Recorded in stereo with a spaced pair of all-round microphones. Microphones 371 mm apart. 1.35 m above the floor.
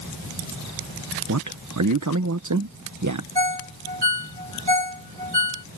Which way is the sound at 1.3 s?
50° right (ahead or behind).